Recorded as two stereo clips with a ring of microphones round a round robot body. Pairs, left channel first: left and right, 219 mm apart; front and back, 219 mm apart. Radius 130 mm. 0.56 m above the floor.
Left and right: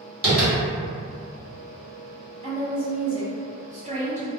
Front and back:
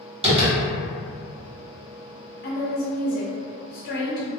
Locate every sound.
0.2 s tapping: 125° right, 1.9 m
2.4 s a woman speaking: 40° right, 1.3 m